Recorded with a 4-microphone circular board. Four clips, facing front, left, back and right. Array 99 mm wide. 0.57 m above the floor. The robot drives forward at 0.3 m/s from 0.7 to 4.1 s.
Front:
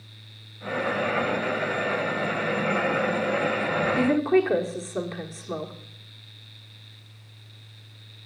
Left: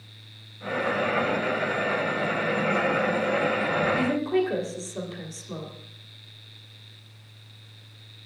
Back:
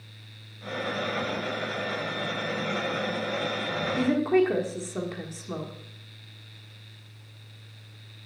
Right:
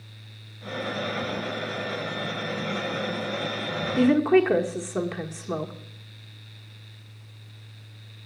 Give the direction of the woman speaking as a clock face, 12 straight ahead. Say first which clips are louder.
Right 5 dB, even; 3 o'clock.